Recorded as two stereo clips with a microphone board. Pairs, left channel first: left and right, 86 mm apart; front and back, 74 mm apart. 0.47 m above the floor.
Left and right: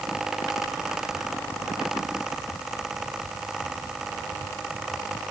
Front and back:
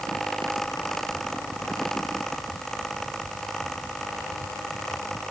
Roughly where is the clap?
No clap in this recording.